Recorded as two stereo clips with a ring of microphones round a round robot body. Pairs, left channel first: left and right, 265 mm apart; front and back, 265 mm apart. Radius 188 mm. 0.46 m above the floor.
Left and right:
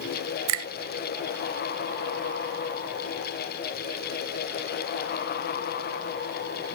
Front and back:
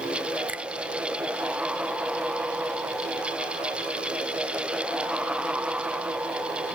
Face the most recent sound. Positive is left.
turn(degrees=-95)